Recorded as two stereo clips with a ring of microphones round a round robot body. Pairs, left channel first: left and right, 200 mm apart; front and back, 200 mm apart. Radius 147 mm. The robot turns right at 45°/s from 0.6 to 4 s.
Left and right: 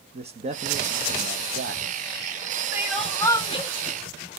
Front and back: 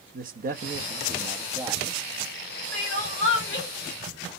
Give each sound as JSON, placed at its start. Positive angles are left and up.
{"t": 0.1, "sound": "a man speaking", "azimuth_deg": -145, "distance_m": 1.0}
{"t": 2.7, "sound": "crying", "azimuth_deg": -10, "distance_m": 3.5}